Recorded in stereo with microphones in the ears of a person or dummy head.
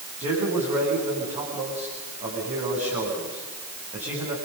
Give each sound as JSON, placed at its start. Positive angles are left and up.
{"t": 0.2, "sound": "a man speaking", "side_deg": -35, "distance_m": 7.0}